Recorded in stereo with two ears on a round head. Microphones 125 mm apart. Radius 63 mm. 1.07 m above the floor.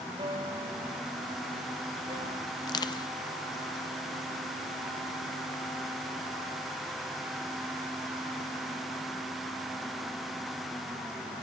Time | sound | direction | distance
0.2 | a piano | 35° right (ahead or behind) | 1.4 m
2.6 | crushing | 30° left (ahead or behind) | 0.6 m